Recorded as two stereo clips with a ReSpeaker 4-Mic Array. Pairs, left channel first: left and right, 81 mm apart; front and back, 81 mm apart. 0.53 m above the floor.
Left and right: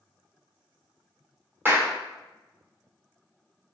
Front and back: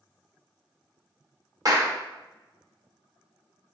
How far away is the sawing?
No sawing in this recording.